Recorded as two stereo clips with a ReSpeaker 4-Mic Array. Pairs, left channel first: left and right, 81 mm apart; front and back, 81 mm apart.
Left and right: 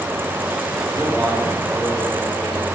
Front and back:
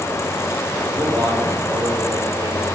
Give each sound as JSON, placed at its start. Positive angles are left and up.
{"t": 0.9, "sound": "a man speaking", "azimuth_deg": 155, "distance_m": 3.0}